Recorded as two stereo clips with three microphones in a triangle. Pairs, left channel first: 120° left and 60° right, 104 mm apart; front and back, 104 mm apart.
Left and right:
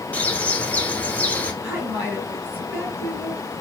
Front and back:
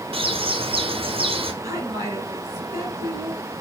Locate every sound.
0.1 s a bird: 165° right, 1.0 m
1.6 s a woman speaking: 130° right, 2.5 m